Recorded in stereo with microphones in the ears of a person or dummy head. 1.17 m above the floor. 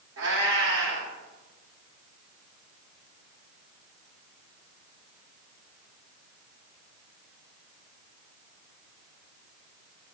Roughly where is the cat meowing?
Right.